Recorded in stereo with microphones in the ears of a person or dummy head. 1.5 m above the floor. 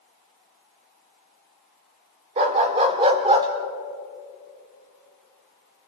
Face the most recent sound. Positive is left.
turn(degrees=-20)  # may be behind; listen again after turning